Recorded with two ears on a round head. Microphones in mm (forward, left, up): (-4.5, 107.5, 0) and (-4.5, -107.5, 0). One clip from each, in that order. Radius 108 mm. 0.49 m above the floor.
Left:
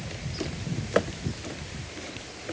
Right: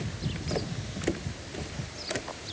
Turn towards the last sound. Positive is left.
No sound to turn to.